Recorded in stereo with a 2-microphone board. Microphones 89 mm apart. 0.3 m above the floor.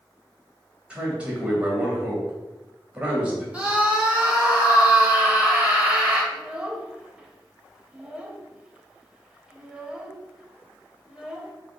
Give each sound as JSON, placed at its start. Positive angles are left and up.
{"t": 0.9, "sound": "a man speaking", "side_deg": -15, "distance_m": 1.1}
{"t": 3.5, "sound": "a scream", "side_deg": -15, "distance_m": 0.9}
{"t": 6.3, "sound": "a child speaking", "side_deg": -10, "distance_m": 0.6}